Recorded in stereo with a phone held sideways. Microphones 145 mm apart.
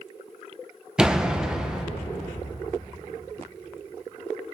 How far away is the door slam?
About 0.6 m.